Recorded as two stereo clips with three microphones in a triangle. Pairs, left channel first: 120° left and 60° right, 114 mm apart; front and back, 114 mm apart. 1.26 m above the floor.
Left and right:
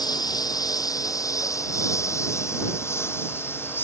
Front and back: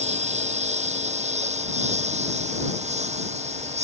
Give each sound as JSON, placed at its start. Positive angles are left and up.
{"t": 0.0, "sound": "a lawn mower", "azimuth_deg": 175}